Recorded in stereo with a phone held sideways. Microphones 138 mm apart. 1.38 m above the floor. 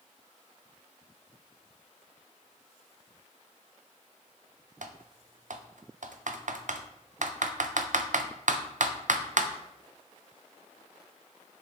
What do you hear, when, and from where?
4.8 s typing on a keyboard: 70° right (ahead or behind), 0.6 m